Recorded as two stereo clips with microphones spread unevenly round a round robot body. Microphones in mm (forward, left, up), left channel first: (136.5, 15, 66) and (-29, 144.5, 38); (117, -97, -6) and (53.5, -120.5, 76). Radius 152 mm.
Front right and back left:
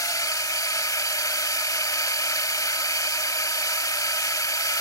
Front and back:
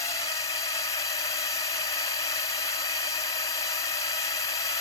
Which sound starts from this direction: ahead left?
A drone, at 0.0 s.